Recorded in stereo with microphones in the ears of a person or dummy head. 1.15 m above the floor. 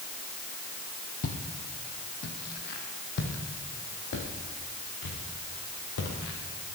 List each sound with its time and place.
1.2 s footsteps: 50° left (ahead or behind), 2 m; by 6.8 s 70° left (ahead or behind), 5 m